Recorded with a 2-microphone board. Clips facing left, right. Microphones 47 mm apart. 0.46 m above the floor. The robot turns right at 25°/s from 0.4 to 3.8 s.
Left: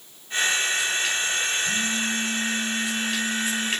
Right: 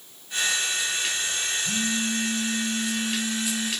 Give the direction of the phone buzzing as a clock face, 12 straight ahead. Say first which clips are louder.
Left 2 dB; 2 o'clock.